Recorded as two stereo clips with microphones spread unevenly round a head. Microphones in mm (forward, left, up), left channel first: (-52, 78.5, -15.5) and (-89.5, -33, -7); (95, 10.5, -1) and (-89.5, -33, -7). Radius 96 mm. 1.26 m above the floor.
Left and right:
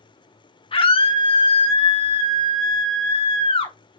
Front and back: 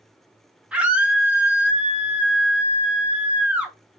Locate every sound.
0.7 s a scream: 110° left, 1.2 m